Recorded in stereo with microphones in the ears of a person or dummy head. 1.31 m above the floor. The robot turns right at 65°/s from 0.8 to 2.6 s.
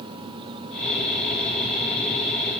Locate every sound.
Only background noise.